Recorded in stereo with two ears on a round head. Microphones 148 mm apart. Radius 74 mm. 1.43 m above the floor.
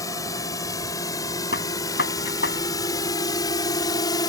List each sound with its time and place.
0.0 s a drone: 20° left (ahead or behind); by 4.3 s 25° left (ahead or behind)
1.5 s a gunshot: 65° left (ahead or behind)